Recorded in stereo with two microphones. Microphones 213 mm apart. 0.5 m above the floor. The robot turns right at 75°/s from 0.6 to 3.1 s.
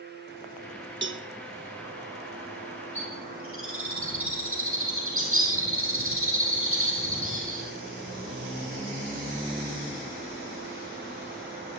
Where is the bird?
70° right (ahead or behind), 5 m; by 7.7 s 80° right, 5 m.